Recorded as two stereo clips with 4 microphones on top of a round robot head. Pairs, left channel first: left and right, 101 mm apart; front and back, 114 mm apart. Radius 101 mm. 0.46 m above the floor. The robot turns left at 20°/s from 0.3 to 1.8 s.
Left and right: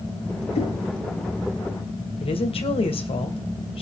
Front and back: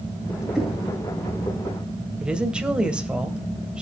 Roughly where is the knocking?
Left.